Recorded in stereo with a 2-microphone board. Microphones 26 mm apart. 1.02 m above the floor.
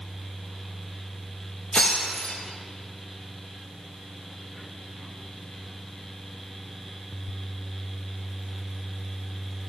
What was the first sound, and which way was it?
Breaking glass, 55° left (ahead or behind).